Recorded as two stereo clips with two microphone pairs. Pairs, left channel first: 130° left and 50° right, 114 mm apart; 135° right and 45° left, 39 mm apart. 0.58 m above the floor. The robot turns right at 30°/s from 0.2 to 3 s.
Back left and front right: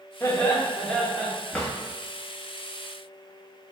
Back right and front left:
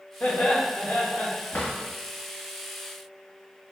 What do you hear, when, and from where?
0.2 s laughter: 170° right, 1.2 m; by 1.3 s 140° right, 1.2 m
1.5 s a drawer: 150° right, 1.2 m; by 1.7 s 145° right, 1.2 m